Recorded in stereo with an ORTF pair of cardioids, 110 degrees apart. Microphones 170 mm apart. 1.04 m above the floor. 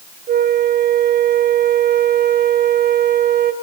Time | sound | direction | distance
0.3 | a flute | 65° right | 0.6 m